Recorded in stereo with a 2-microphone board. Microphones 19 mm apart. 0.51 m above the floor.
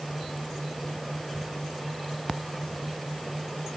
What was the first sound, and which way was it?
Only background noise.